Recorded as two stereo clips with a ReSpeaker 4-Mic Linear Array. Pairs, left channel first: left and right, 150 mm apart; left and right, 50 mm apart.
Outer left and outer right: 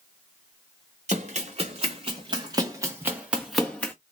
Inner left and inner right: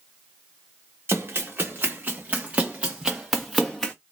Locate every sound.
1.1 s running footsteps: 50° right (ahead or behind), 1.7 m; by 3.9 s 10° left (ahead or behind), 1.0 m